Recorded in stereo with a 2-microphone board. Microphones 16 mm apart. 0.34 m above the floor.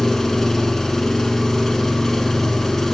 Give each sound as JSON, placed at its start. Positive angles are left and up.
{"t": 0.0, "sound": "an engine running", "side_deg": 35, "distance_m": 0.9}